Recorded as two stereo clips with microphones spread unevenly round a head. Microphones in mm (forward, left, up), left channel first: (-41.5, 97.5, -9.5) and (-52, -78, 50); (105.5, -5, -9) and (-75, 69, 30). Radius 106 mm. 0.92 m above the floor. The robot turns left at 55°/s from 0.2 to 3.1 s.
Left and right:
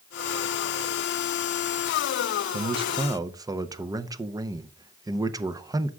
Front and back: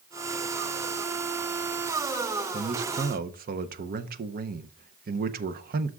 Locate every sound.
2.5 s a man speaking: 145° right, 0.6 m; by 5.9 s straight behind, 0.6 m